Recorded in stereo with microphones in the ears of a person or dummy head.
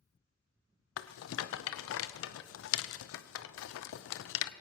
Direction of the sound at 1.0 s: 85° left.